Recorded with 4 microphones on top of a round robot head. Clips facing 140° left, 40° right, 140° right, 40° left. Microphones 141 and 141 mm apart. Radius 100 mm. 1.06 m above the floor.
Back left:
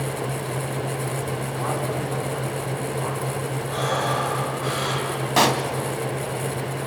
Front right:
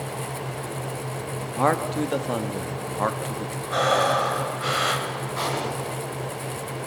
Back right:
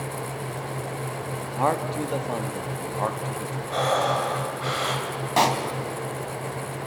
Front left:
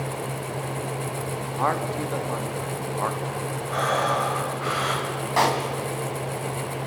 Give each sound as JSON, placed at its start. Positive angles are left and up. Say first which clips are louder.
{"t": 1.6, "sound": "a man speaking", "louder": "front right 6 dB, back right 2 dB", "azimuth_deg": -65, "distance_m": 1.5}
{"t": 3.7, "sound": "breathing", "louder": "front right 4 dB, back right 2 dB", "azimuth_deg": -75, "distance_m": 3.0}
{"t": 5.4, "sound": "a pop", "louder": "back left 9 dB, even", "azimuth_deg": 155, "distance_m": 1.8}